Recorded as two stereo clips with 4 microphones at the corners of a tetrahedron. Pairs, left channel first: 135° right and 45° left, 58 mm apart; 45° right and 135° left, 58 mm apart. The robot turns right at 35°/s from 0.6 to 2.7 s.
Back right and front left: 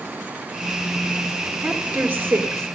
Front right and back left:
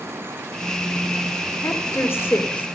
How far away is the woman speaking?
About 2 m.